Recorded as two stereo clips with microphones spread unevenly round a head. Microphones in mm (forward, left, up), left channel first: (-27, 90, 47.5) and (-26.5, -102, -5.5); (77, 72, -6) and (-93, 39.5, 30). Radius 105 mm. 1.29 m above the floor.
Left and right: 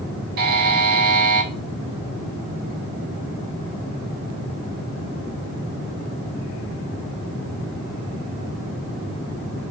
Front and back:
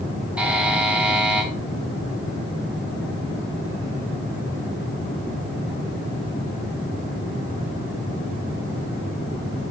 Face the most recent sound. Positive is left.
turn(degrees=-115)